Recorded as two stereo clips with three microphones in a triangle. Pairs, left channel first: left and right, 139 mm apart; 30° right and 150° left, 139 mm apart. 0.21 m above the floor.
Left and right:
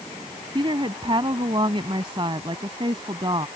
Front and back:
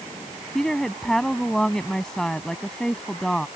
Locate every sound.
0.6 s a woman speaking: 115° right